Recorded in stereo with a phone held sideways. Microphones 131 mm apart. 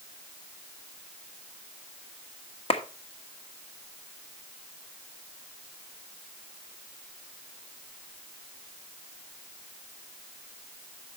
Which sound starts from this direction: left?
A clap, at 2.7 s.